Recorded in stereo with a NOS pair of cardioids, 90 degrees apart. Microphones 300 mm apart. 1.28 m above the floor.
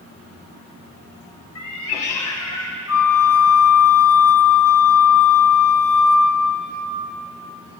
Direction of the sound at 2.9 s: 50° left.